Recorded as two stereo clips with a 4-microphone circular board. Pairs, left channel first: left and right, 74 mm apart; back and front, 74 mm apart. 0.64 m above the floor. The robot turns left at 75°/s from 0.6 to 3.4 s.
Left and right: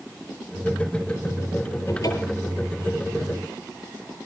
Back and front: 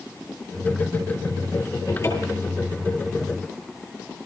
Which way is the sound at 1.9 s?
140° left.